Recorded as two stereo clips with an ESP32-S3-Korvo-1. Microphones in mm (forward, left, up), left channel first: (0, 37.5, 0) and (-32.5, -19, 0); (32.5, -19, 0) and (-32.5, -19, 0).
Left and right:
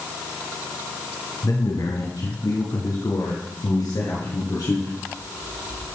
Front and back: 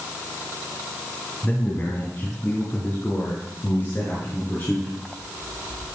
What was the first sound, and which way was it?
A man speaking, 60° left.